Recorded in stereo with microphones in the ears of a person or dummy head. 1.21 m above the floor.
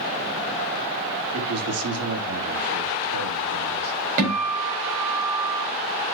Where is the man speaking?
80° right, 3 m.